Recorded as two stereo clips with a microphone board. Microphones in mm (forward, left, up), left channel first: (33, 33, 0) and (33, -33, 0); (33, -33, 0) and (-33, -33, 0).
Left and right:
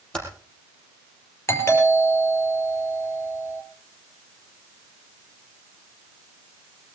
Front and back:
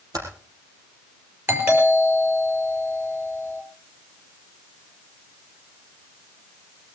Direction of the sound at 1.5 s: 135° left.